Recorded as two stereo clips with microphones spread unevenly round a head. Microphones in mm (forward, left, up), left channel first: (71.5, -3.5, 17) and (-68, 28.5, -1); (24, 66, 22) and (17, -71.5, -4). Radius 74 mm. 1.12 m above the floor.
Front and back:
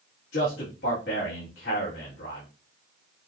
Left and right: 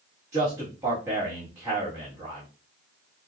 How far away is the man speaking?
About 2 m.